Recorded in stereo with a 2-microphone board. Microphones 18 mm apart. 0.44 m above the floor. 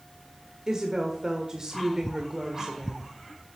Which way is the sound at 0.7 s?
30° right (ahead or behind).